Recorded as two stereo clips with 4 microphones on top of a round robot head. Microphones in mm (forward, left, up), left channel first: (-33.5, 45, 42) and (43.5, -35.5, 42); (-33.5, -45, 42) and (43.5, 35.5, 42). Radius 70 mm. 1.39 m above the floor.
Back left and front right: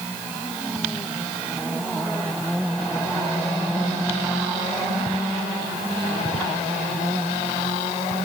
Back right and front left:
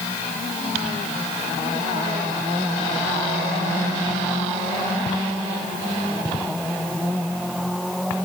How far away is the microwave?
I don't hear a microwave.